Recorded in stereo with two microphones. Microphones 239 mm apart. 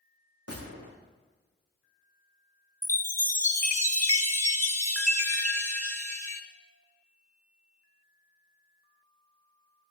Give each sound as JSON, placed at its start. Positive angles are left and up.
{"t": 0.5, "sound": "a gunshot", "side_deg": -80, "distance_m": 6.5}
{"t": 2.8, "sound": "a chime", "side_deg": 10, "distance_m": 1.8}